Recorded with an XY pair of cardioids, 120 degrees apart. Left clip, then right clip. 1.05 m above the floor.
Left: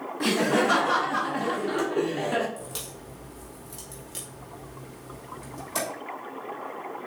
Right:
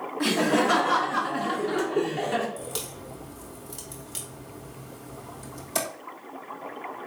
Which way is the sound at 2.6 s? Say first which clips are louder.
Right 3 dB; 15° right.